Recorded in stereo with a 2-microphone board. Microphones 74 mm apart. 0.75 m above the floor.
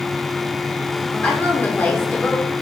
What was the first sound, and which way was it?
A woman speaking, 25° left (ahead or behind).